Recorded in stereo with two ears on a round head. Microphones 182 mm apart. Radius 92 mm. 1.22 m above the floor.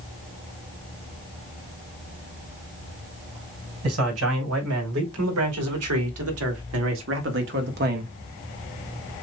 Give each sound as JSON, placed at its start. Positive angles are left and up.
{"t": 3.8, "sound": "a man speaking", "side_deg": -85, "distance_m": 3.5}